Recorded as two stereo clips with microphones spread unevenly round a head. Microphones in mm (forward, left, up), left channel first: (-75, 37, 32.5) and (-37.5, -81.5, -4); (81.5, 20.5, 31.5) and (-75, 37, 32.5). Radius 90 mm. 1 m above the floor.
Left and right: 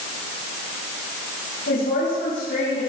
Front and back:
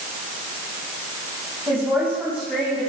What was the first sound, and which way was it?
A woman speaking, 100° left.